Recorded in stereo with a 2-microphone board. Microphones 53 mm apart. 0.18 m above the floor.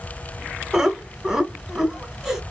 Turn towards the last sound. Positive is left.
turn(degrees=-5)  # may be behind; listen again after turning